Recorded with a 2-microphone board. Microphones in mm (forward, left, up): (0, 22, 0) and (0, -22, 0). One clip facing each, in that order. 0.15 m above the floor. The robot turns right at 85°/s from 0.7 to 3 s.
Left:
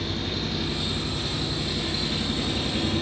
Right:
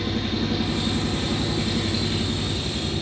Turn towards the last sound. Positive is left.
turn(degrees=50)